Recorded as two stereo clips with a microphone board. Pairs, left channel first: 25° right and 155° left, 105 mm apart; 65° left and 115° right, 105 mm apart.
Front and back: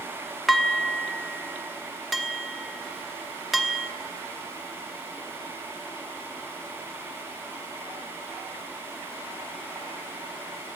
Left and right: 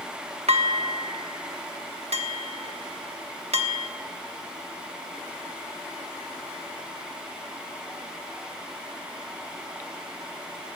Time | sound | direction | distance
0.5 | dishes clattering | 115° right | 1.0 m